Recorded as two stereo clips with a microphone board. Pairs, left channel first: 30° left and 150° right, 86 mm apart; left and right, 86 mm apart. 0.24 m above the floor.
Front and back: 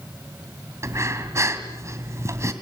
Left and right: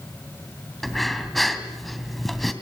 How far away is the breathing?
About 2 m.